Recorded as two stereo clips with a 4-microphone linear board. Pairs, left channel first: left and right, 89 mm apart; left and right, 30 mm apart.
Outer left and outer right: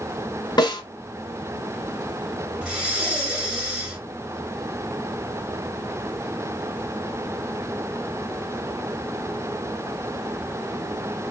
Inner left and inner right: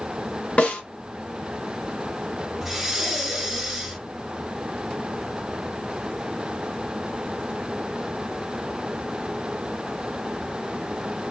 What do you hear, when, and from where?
0.6 s a snare drum: 50° left (ahead or behind), 1.8 m
2.6 s breathing: 10° right (ahead or behind), 1.5 m